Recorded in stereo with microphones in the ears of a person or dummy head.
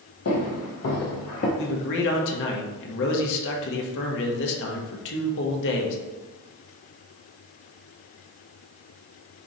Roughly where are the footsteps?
Left.